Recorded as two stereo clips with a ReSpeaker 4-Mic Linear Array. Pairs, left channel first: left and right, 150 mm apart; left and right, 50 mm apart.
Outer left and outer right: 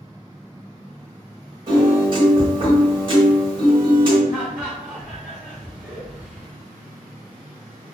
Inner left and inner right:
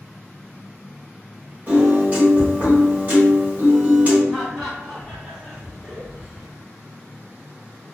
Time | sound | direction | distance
1.7 | a piano | 35° right (ahead or behind) | 1.3 m
4.3 | laughter | 5° right (ahead or behind) | 1.0 m